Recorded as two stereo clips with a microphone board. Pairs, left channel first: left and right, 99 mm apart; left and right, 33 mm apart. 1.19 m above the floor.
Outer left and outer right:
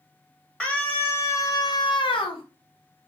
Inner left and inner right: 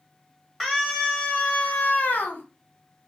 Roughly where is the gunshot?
I don't hear a gunshot.